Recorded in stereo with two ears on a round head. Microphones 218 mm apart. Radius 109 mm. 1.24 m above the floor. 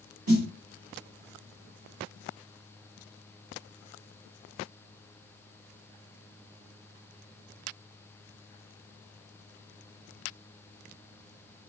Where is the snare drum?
65° right (ahead or behind), 3 m.